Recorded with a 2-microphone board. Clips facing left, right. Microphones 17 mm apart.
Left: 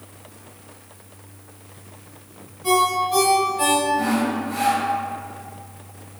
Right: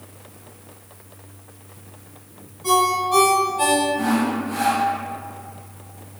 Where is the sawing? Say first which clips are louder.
Even; 40° right (ahead or behind), 1.9 m.